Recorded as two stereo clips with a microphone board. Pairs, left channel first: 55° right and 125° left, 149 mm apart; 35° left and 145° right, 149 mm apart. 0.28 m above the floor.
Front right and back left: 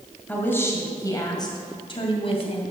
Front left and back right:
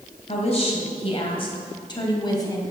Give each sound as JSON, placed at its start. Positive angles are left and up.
{"t": 0.3, "sound": "a woman speaking", "azimuth_deg": 20, "distance_m": 2.0}